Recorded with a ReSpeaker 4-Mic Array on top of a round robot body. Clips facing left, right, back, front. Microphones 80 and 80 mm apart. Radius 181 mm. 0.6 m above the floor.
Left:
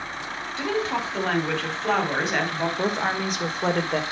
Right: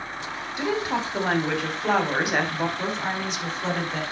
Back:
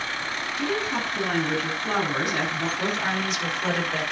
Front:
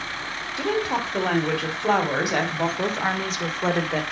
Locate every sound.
0.6 s a woman speaking: 15° right, 3.5 m
2.8 s a woman speaking: 50° left, 2.5 m